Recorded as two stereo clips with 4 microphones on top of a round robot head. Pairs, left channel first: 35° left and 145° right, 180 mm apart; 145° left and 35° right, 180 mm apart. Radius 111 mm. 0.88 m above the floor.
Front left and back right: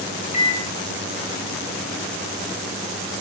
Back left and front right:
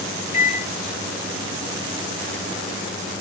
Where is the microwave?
95° left, 2.5 m.